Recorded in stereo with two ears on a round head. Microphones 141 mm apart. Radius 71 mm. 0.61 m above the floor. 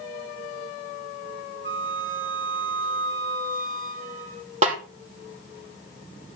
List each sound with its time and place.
1.6 s a flute: 55° right (ahead or behind), 1.3 m
4.6 s a snare drum: 45° right (ahead or behind), 2.5 m